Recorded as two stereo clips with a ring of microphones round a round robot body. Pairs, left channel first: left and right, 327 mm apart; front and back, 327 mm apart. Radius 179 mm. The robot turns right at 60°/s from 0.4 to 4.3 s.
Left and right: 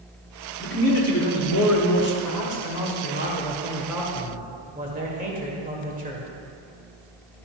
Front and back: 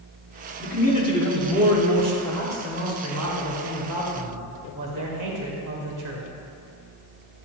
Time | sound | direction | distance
0.6 | a man speaking | 45° left | 1.5 m
2.2 | a man speaking | 80° left | 1.9 m